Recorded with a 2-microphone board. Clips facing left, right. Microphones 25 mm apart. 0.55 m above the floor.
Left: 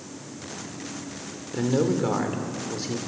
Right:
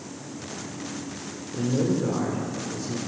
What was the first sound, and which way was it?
A man speaking, 55° left (ahead or behind).